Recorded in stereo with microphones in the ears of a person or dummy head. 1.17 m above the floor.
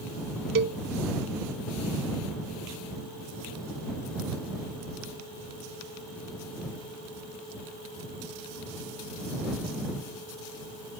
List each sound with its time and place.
0.6 s a cowbell: 55° right (ahead or behind)